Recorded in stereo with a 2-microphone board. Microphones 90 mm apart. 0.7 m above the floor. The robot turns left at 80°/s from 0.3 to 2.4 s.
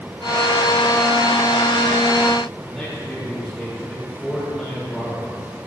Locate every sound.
2.6 s a man speaking: 5° left (ahead or behind), 4.5 m